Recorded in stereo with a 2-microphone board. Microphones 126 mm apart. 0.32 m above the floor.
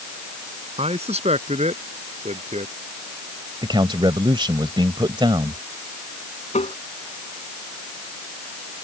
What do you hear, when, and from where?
0.8 s a man speaking: 55° right (ahead or behind); by 2.7 s 60° right (ahead or behind)
3.6 s a man speaking: 40° right (ahead or behind)
6.5 s tapping: 65° left (ahead or behind)